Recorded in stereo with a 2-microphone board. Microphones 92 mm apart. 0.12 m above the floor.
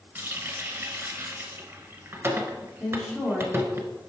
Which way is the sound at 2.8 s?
5° left (ahead or behind).